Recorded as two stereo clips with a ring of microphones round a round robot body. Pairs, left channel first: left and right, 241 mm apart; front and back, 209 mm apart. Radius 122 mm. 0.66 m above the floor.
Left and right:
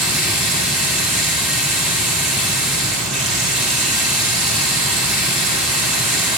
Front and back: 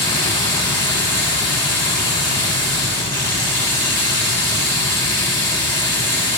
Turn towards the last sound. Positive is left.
turn(degrees=-120)